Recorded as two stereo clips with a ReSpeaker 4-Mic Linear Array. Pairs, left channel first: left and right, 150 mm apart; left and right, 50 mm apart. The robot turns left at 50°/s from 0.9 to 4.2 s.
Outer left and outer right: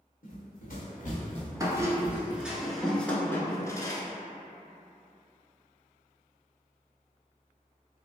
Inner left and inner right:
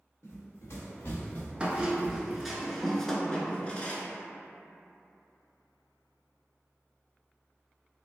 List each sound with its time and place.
0.2 s running footsteps: 75° left (ahead or behind), 1.6 m; by 2.4 s 45° right (ahead or behind), 0.6 m
1.6 s a squeak: 25° right (ahead or behind), 0.6 m; by 4.0 s 30° left (ahead or behind), 0.6 m